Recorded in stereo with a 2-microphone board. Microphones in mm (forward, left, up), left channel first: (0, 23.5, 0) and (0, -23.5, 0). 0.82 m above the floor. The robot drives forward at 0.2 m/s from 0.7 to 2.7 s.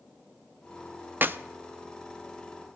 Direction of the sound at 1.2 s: 45° right (ahead or behind).